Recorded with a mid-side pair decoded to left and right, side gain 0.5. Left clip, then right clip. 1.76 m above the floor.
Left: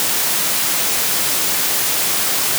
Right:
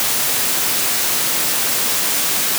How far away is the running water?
No running water in this recording.